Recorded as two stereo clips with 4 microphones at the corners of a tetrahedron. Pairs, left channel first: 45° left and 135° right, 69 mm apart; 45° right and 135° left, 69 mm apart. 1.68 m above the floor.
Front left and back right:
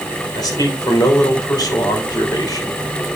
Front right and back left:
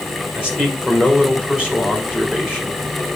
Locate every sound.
0.3 s a man speaking: 60° left, 3 m